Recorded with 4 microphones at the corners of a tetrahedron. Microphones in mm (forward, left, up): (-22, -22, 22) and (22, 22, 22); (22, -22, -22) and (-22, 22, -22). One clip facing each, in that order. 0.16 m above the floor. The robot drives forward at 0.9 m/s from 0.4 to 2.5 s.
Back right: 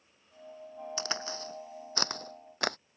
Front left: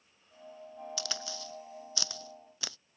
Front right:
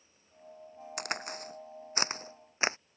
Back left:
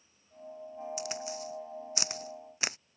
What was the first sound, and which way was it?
A crack, 80° right.